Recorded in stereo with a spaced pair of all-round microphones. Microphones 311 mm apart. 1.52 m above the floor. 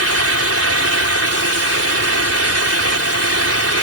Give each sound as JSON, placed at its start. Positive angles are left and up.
{"t": 0.0, "sound": "a fan", "side_deg": -50}